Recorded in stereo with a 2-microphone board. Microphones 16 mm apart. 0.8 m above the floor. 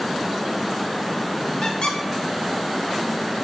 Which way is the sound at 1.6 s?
50° left (ahead or behind).